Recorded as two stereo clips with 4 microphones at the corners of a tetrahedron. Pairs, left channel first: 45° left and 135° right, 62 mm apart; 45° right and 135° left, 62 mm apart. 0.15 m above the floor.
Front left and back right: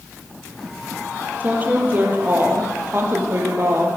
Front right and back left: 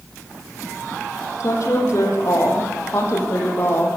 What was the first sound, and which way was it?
A woman speaking, 75° right.